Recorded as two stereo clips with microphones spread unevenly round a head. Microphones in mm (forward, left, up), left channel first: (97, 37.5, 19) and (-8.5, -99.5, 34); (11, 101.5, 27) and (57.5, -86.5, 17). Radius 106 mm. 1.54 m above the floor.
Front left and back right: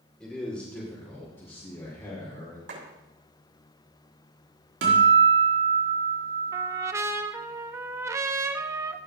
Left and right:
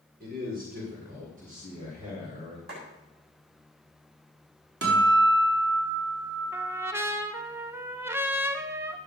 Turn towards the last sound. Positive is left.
turn(degrees=-140)